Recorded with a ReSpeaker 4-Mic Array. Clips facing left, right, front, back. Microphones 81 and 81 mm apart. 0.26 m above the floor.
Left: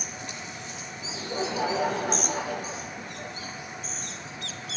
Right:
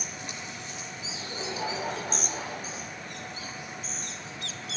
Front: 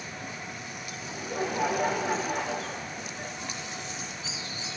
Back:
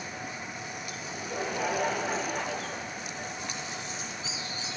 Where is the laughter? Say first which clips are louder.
Left 7 dB, front 3 dB; 80° left, 2 m.